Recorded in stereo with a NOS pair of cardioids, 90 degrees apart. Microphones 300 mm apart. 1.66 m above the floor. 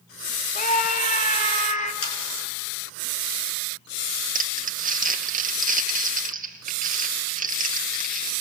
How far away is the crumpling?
About 2 m.